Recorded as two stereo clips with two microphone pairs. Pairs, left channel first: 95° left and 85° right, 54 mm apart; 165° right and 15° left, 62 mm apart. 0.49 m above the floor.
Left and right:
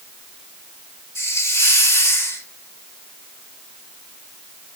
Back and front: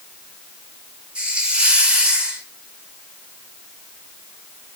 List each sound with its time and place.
1.1 s a hiss: 85° left, 1.4 m